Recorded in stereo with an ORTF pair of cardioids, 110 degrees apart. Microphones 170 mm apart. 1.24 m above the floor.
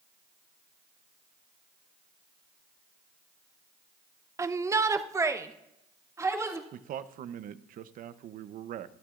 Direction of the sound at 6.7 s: 55° right.